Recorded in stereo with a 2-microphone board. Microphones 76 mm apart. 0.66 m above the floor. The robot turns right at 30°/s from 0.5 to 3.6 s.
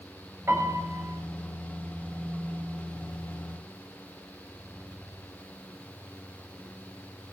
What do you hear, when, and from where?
0.5 s a piano: 35° right (ahead or behind), 3 m; by 1.0 s 20° right (ahead or behind), 3 m